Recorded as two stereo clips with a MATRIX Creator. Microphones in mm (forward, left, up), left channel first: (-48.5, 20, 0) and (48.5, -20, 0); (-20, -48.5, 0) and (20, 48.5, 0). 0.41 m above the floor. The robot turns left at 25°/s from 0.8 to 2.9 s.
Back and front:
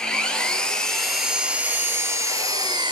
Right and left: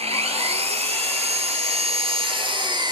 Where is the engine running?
75° left, 1.9 m; by 2.9 s 20° left, 1.9 m.